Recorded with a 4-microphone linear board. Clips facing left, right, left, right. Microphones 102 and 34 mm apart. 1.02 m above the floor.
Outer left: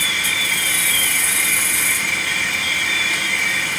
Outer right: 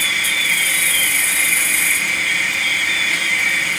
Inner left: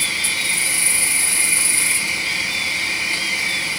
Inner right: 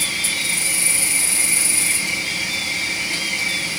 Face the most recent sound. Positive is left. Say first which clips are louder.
# outer right 1 dB, inner left 1 dB
turn(degrees=25)  # may be behind; listen again after turning